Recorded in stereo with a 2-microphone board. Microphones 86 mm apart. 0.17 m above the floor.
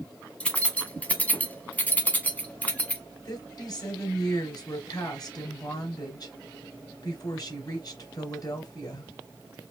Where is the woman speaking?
50° left (ahead or behind), 2.5 m.